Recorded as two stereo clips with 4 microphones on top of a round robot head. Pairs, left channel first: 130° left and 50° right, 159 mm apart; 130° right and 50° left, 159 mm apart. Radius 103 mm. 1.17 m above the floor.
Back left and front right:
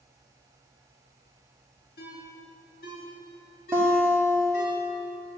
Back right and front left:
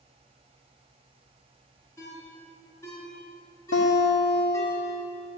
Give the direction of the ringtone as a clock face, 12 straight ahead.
7 o'clock.